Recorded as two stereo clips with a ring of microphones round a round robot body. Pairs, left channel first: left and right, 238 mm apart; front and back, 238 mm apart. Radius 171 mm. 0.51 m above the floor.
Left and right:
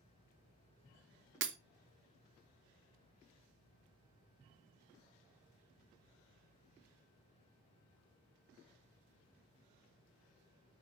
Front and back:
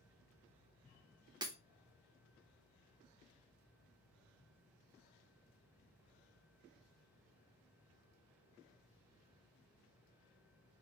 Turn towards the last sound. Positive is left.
turn(degrees=-110)